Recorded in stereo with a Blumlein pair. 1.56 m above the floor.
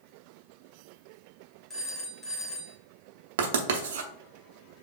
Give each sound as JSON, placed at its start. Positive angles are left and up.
{"t": 1.7, "sound": "a phone ringing", "azimuth_deg": 5, "distance_m": 1.4}
{"t": 3.4, "sound": "writing", "azimuth_deg": -55, "distance_m": 0.8}